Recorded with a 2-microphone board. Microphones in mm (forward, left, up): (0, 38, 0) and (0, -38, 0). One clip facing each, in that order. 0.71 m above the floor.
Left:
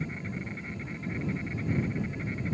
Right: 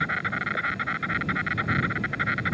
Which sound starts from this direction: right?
An insect, at 0.0 s.